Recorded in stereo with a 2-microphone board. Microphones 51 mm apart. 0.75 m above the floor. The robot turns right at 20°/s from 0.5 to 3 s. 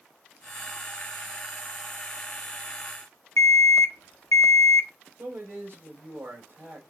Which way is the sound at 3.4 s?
80° left.